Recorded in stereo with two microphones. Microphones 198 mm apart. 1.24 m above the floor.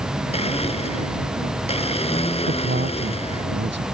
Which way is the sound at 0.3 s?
30° left (ahead or behind).